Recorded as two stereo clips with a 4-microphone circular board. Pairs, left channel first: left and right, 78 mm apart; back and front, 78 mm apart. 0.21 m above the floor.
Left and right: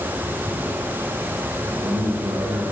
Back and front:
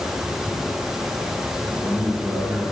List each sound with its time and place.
1.6 s a man speaking: 90° right, 2.5 m; by 2.6 s 85° right, 2 m